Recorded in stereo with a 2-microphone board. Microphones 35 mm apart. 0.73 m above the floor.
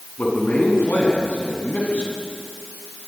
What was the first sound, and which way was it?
A man speaking, 55° left (ahead or behind).